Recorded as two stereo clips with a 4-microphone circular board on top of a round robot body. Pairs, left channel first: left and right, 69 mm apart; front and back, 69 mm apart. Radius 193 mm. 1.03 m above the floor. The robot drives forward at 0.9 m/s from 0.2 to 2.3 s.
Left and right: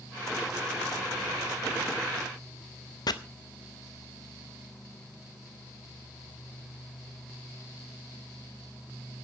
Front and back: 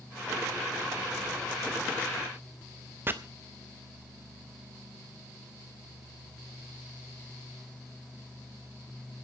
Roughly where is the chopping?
Behind left.